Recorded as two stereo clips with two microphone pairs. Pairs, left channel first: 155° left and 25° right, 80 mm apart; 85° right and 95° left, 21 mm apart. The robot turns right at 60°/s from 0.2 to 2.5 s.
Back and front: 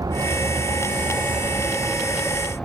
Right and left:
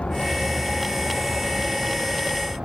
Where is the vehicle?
60° right; by 2.6 s 75° left.